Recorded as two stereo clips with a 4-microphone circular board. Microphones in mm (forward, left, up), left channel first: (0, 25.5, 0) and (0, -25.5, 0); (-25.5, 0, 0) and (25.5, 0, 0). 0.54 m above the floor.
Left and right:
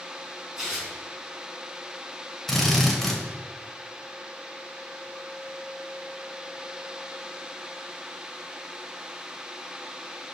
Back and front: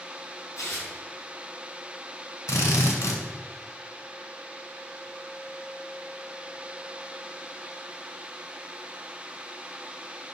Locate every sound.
0.6 s tearing paper: 170° right, 4 m
2.5 s a drill: 175° left, 2 m